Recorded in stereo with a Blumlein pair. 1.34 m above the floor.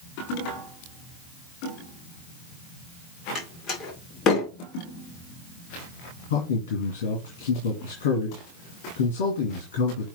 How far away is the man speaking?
About 2.5 m.